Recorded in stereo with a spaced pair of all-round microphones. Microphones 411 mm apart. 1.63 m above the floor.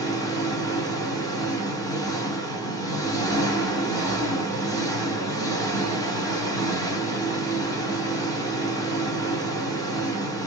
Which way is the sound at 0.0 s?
10° left (ahead or behind).